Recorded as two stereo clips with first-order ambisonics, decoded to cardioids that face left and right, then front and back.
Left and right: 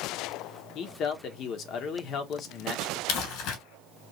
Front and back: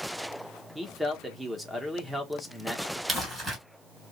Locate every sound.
0.8 s a man speaking: 90° left, 1.0 m
3.1 s crumpling: 105° left, 3.5 m